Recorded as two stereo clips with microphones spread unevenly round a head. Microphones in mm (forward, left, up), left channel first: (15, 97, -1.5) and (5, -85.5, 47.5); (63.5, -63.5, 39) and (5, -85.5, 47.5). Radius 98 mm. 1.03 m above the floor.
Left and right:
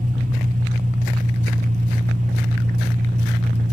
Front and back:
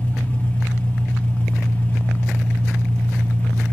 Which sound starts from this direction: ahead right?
An engine running, at 0.0 s.